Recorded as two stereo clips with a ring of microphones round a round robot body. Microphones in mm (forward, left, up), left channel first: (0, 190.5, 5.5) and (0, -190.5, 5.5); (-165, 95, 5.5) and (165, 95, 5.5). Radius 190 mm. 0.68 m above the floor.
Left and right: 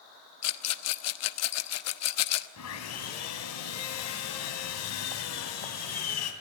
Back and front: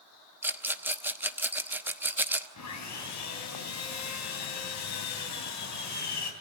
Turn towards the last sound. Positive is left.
turn(degrees=140)